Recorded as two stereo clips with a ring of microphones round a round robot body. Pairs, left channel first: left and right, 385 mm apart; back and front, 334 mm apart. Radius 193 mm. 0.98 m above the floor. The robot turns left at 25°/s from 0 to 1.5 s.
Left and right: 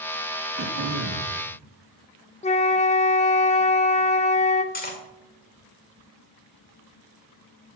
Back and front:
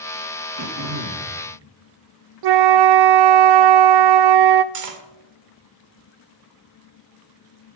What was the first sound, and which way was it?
Throat clearing, 25° right.